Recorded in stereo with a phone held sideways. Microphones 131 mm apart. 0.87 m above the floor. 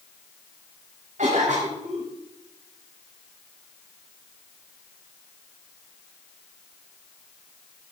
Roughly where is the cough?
Right.